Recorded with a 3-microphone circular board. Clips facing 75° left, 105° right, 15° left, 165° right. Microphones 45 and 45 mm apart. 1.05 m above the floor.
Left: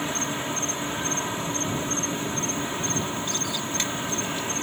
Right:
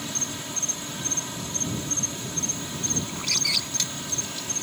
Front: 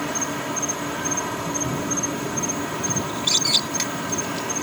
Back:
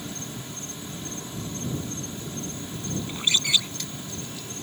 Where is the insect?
15° left.